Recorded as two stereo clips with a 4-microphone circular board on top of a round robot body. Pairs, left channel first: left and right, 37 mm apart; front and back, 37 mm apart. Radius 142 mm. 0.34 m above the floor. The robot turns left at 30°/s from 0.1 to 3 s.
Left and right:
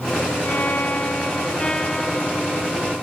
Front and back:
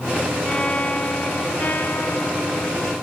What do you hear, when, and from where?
0.5 s a violin: 65° left; by 2.9 s 10° right